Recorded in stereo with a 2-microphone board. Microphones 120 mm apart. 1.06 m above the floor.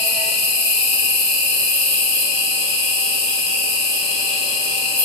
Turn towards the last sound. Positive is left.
turn(degrees=5)  # may be behind; listen again after turning